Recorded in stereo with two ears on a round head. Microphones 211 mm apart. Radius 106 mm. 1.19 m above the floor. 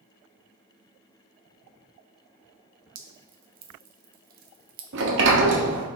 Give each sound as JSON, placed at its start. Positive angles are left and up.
{"t": 3.0, "sound": "dripping", "side_deg": -40, "distance_m": 0.6}
{"t": 4.9, "sound": "a sliding door", "side_deg": -60, "distance_m": 0.8}